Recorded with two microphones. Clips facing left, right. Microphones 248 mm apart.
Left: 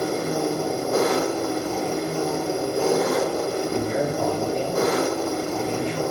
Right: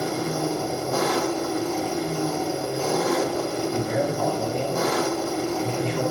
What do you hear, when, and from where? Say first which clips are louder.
0.0 s an engine running: left 2 dB; 60° left (ahead or behind), 1.0 m
3.7 s a man speaking: left 1 dB; 65° left (ahead or behind), 3.5 m